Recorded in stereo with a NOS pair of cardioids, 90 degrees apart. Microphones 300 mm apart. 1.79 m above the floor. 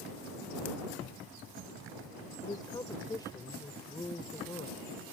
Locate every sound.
2.4 s a woman speaking: 15° left